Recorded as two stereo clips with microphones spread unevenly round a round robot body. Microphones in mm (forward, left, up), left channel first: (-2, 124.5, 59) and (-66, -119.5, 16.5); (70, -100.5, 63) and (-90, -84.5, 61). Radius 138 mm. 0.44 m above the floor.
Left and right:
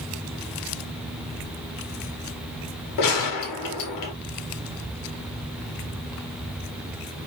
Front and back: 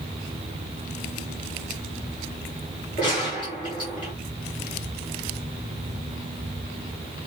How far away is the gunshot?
About 0.9 m.